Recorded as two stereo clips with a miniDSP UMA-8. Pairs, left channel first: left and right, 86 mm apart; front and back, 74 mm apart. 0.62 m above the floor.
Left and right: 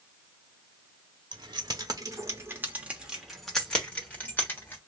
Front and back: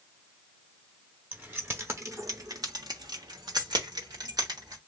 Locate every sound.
1.3 s keys jangling: 115° right, 1.3 m; by 4.8 s 155° left, 1.6 m